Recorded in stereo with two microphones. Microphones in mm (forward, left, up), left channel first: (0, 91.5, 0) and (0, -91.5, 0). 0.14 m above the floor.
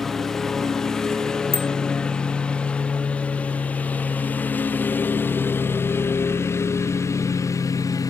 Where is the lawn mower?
Centre (ahead or behind); by 8.1 s 15° left (ahead or behind).